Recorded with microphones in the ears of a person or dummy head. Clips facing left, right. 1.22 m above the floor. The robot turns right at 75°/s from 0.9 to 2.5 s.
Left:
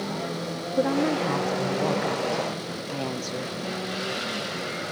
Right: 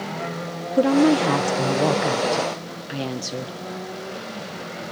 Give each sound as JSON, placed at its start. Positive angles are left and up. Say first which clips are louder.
{"t": 0.8, "sound": "a woman speaking", "louder": "right 7 dB", "azimuth_deg": -135, "distance_m": 0.8}